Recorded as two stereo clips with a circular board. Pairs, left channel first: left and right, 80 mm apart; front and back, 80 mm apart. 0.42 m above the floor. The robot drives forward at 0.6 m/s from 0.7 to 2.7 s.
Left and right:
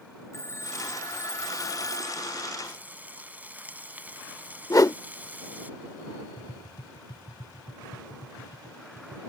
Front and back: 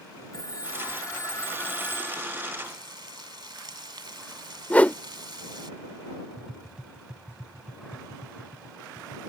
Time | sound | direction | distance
0.3 | a phone ringing | 40° left | ?
2.6 | frying | 155° right | ?
4.7 | a whoosh | 65° left | ?
6.4 | tapping | 100° left | ?